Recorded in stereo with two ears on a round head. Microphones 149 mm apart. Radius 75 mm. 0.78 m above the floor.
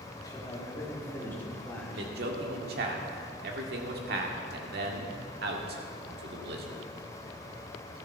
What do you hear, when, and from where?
0.2 s a man speaking: 25° left (ahead or behind), 1.9 m; by 2.1 s 5° left (ahead or behind), 3 m
1.9 s a man speaking: 65° right (ahead or behind), 1.7 m